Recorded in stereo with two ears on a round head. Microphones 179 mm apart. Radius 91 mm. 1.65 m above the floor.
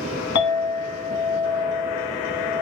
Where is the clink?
65° left (ahead or behind), 1.1 m.